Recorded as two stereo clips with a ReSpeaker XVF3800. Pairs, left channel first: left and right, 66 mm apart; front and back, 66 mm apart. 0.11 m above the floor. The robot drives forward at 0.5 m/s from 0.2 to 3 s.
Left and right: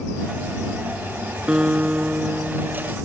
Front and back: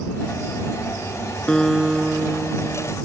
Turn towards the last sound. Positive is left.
turn(degrees=-165)